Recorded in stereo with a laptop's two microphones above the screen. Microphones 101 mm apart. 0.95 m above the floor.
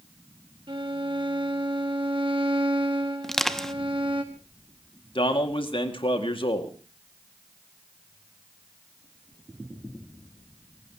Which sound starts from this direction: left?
A man speaking, at 5.2 s.